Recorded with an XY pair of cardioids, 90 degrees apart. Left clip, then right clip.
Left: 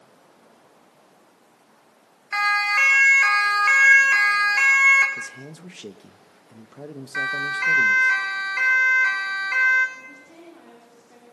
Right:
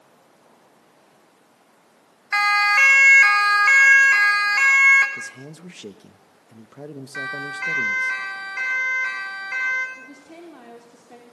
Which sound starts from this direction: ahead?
A man speaking, at 5.2 s.